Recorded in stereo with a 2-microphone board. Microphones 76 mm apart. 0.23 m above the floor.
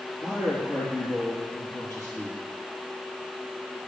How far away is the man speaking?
About 3 m.